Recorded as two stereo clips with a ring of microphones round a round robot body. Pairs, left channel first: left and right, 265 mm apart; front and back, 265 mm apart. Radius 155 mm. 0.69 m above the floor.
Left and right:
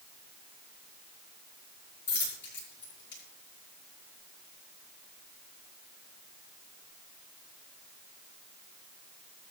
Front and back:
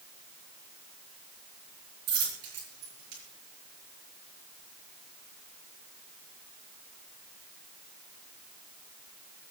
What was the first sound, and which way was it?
A dropped coin, 135° left.